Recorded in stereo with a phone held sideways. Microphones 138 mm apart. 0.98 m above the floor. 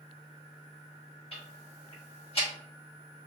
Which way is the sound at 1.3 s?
45° left (ahead or behind).